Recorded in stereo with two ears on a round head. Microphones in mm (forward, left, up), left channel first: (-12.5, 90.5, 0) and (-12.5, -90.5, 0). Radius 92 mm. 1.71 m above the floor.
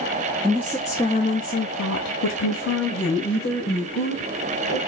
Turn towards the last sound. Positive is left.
turn(degrees=45)  # may be behind; listen again after turning